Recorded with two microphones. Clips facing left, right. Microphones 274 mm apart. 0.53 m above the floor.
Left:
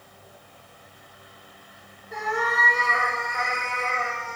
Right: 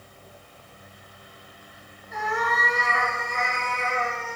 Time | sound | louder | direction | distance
2.1 | a cat meowing | left 1 dB | 55° left (ahead or behind) | 1.2 m